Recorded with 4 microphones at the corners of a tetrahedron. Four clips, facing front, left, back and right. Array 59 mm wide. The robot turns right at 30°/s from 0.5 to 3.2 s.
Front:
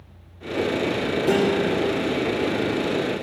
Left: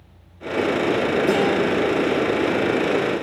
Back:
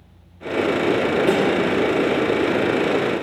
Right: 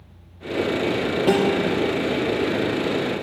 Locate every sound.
1.3 s a guitar: 125° right, 5.5 m; by 1.6 s 115° right, 5.5 m